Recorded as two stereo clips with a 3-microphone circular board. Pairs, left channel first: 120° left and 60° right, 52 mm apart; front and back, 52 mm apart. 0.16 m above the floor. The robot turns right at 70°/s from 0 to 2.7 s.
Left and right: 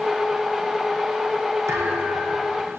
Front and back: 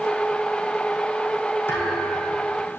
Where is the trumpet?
I don't hear a trumpet.